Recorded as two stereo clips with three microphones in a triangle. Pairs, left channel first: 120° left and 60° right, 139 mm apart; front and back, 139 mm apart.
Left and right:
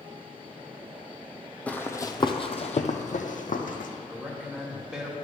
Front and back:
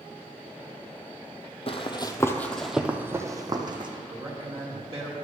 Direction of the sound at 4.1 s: 135° right.